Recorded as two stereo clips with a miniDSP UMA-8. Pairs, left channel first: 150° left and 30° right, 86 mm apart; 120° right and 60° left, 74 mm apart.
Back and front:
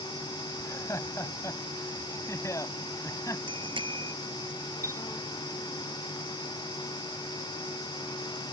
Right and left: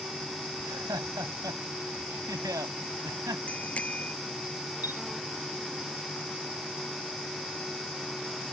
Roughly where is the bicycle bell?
Ahead right.